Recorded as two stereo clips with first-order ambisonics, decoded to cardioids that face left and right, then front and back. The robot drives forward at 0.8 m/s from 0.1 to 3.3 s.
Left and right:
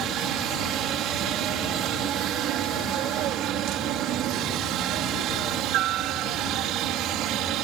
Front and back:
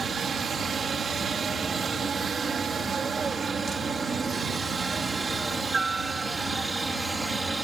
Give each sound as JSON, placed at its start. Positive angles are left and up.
{"t": 0.0, "sound": "a helicopter", "azimuth_deg": -120}